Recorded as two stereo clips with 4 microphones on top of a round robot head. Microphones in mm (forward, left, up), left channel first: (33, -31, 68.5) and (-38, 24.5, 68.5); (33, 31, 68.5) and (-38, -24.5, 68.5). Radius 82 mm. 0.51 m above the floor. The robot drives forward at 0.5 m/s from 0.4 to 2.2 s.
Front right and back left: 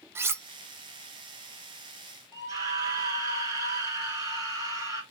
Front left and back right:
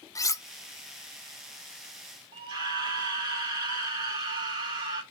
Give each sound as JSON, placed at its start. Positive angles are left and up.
{"t": 0.1, "sound": "cutlery clinking", "azimuth_deg": 85, "distance_m": 0.5}
{"t": 2.3, "sound": "a scream", "azimuth_deg": -170, "distance_m": 3.5}